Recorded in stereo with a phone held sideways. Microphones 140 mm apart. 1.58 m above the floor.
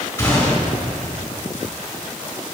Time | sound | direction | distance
0.2 | a gunshot | 15° left (ahead or behind) | 3.5 m